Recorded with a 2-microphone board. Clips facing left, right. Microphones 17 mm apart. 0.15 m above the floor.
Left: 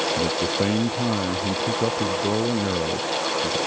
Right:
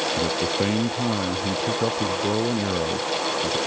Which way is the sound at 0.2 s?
5° right (ahead or behind).